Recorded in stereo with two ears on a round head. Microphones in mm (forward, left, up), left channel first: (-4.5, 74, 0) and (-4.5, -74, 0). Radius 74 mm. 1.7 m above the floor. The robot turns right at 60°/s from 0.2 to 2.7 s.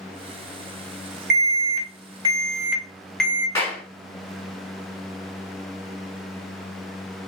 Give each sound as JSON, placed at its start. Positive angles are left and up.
{"t": 1.3, "sound": "an alarm", "azimuth_deg": -85, "distance_m": 2.5}
{"t": 3.5, "sound": "a clap", "side_deg": 15, "distance_m": 4.5}